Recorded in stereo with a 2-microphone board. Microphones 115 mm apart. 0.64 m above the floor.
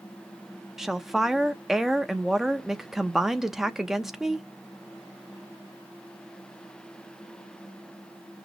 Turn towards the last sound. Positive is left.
turn(degrees=-5)  # may be behind; listen again after turning